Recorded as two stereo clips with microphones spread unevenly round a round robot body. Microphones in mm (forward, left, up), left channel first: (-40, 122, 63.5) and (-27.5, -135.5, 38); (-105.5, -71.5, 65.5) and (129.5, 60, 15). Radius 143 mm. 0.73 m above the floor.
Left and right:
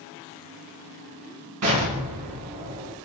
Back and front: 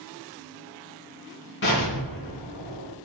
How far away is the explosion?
About 2.5 m.